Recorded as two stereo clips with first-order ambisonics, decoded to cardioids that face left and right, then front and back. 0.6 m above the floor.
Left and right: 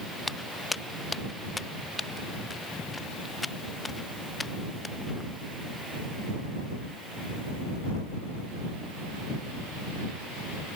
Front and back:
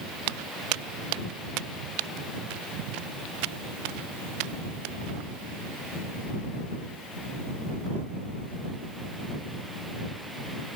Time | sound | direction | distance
0.3 | footsteps | 175° left | ?